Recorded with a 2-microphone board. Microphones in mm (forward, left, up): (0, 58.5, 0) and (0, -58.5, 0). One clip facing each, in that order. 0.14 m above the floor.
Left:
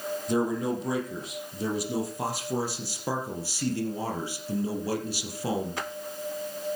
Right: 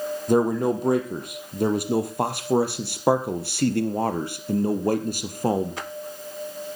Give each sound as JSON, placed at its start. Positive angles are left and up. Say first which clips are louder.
{"t": 0.3, "sound": "a man speaking", "louder": "right 7 dB", "side_deg": -55, "distance_m": 4.0}